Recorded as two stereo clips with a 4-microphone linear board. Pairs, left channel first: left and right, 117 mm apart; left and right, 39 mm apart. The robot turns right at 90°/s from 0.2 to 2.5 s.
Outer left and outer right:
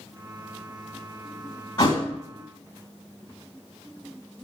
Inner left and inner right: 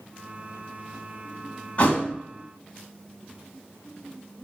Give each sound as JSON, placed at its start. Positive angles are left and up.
{"t": 1.8, "sound": "a thud", "side_deg": 40, "distance_m": 0.9}